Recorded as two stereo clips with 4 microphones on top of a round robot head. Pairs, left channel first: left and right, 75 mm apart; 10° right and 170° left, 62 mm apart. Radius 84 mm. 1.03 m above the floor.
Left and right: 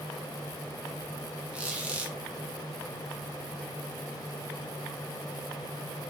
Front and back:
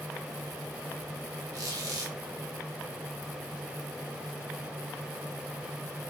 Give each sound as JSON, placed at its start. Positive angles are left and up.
{"t": 1.5, "sound": "a squeak", "azimuth_deg": -165, "distance_m": 1.1}